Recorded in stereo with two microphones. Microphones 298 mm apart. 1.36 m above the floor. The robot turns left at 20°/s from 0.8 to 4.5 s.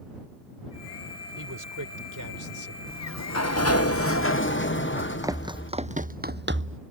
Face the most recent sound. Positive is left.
turn(degrees=-45)  # may be behind; listen again after turning